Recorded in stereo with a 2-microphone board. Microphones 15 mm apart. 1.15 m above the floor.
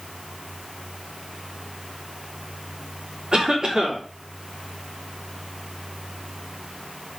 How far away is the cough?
About 4 m.